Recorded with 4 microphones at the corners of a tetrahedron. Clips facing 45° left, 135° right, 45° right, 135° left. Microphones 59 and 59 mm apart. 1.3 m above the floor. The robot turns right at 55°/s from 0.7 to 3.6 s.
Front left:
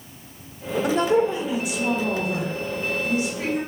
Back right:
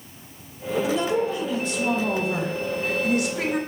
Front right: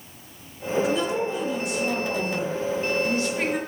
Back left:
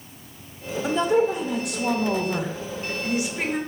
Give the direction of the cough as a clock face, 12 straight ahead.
I don't hear a cough.